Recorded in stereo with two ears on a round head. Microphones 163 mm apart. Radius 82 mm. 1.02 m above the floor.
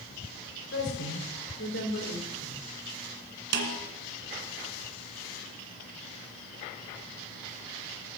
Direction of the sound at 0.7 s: 75° left (ahead or behind).